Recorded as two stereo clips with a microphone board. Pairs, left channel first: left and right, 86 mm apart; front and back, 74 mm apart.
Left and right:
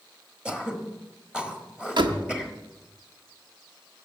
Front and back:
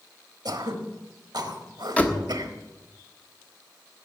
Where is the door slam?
70° right, 1.3 m.